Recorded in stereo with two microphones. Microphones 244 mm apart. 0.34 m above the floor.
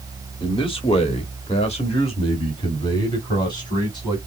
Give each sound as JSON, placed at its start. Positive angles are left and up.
{"t": 0.4, "sound": "a man speaking", "side_deg": 20, "distance_m": 1.4}